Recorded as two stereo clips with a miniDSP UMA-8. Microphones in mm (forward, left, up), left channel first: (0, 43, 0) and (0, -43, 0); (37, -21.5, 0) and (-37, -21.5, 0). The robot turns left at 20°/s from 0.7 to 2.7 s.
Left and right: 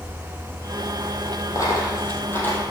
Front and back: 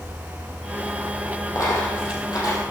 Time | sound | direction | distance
1.6 | a dropped coin | 45° left | 4.5 m